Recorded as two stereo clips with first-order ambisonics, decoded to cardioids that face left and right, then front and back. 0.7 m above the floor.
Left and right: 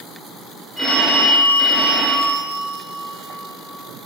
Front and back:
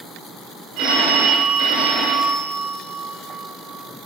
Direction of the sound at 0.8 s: 175° right.